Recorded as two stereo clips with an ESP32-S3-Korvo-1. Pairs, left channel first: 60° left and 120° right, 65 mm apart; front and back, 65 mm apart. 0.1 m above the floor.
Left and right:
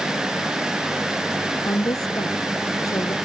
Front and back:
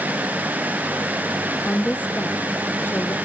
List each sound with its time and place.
1.6 s a woman speaking: 70° left; by 3.1 s 50° left